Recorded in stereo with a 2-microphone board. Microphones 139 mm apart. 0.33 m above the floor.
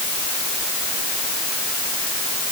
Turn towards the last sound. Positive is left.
No sound to turn to.